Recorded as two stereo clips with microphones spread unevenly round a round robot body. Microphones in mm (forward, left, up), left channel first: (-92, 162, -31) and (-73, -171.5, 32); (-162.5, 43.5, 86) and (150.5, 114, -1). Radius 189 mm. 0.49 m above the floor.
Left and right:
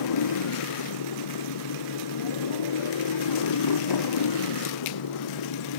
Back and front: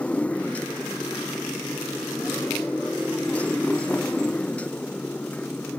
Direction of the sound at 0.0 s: 110° left.